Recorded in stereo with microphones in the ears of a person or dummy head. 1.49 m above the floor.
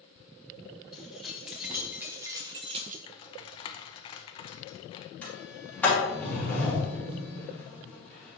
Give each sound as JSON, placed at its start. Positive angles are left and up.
{"t": 0.9, "sound": "keys jangling", "side_deg": 0, "distance_m": 2.5}
{"t": 3.1, "sound": "typing on a keyboard", "side_deg": 30, "distance_m": 0.7}
{"t": 5.2, "sound": "a sliding door", "side_deg": 10, "distance_m": 2.5}